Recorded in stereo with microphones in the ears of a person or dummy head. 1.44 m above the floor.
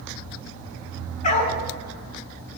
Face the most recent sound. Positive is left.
turn(degrees=40)  # may be behind; listen again after turning